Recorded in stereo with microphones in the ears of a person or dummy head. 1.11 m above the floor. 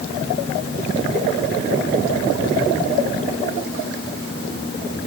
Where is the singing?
I don't hear singing.